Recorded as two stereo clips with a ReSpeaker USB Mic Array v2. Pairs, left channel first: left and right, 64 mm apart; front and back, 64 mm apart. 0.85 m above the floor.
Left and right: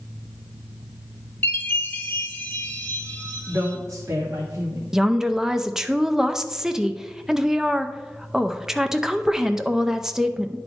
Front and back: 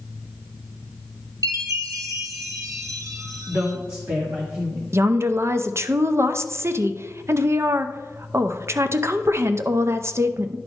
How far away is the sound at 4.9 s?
About 0.6 m.